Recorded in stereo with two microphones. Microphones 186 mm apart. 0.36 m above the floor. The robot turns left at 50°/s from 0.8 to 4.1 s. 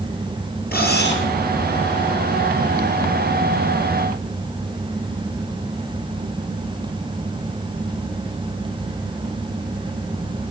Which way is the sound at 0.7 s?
60° left (ahead or behind).